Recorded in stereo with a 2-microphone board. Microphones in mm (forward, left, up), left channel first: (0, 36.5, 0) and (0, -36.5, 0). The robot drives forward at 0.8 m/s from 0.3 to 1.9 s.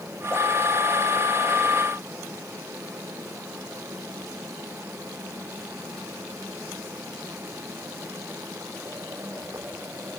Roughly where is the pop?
I don't hear a pop.